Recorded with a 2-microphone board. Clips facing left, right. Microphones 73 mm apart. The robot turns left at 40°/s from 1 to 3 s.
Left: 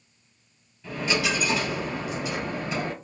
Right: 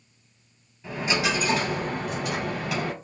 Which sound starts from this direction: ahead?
A dropped coin, at 0.8 s.